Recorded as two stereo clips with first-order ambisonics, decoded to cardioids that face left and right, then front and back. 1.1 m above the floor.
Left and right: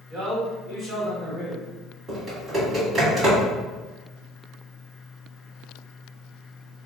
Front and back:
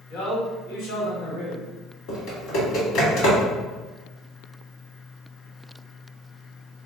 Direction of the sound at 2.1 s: 20° right.